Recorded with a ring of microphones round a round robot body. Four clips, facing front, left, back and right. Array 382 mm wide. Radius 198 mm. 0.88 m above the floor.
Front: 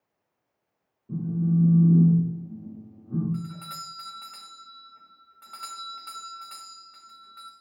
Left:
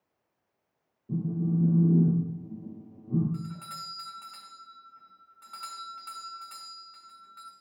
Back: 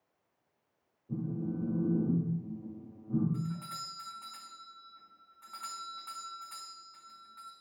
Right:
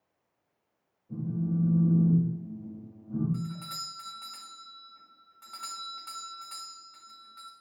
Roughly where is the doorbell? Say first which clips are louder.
Right 1 dB, front 3 dB; ahead.